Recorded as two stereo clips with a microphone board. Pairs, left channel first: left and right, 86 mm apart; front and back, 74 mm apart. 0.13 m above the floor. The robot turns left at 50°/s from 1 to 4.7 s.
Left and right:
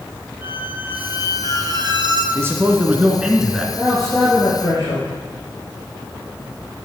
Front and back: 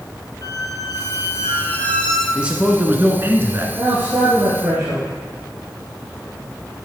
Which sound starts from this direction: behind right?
A man speaking, at 2.4 s.